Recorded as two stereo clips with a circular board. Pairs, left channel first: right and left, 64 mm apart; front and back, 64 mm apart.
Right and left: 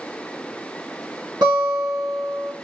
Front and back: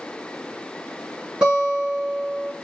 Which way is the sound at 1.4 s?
105° left.